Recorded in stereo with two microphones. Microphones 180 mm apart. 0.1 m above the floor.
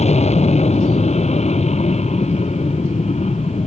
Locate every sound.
0.0 s an aircraft: 35° left (ahead or behind)